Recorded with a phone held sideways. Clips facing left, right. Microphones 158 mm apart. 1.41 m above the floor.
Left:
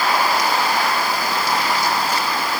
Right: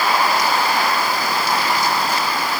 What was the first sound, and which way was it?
Only background noise.